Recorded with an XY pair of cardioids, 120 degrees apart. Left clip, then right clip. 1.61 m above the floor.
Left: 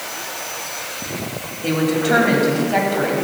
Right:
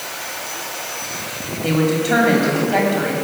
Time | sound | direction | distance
1.6 | a woman speaking | 5° left | 3.5 m